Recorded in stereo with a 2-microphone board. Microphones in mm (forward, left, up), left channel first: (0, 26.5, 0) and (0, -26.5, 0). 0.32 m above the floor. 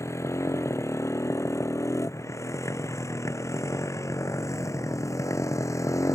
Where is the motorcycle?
65° left (ahead or behind); by 6.2 s 80° left.